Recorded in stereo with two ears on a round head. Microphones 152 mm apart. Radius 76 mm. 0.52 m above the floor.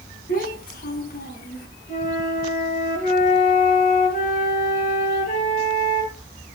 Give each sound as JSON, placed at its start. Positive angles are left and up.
{"t": 0.3, "sound": "a child speaking", "side_deg": 55, "distance_m": 4.0}
{"t": 1.9, "sound": "a flute", "side_deg": 50, "distance_m": 8.5}